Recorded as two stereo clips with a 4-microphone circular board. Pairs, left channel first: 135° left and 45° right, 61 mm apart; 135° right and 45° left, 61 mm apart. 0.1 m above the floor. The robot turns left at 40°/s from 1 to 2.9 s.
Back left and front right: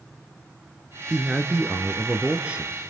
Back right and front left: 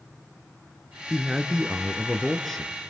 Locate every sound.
1.1 s a man speaking: straight ahead, 1.4 m; by 2.7 s 65° right, 1.4 m